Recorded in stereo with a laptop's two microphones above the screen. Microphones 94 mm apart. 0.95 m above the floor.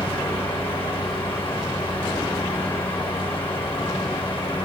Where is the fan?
80° left, 2.5 m.